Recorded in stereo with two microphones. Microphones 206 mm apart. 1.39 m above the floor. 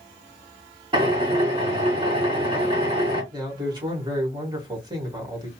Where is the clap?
I don't hear a clap.